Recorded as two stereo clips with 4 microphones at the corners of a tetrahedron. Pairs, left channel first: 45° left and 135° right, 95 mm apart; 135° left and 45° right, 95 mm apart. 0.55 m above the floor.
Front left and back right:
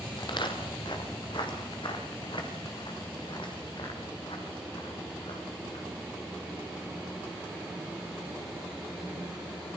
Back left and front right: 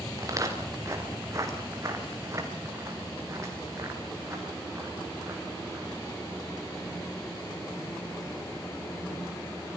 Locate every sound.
0.2 s footsteps: 10° left, 5 m; by 5.9 s 15° left, 7.5 m